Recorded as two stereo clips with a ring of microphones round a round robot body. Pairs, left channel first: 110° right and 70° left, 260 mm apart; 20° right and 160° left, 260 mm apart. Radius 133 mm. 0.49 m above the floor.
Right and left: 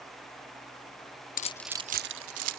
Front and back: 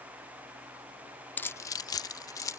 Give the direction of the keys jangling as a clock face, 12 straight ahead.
3 o'clock.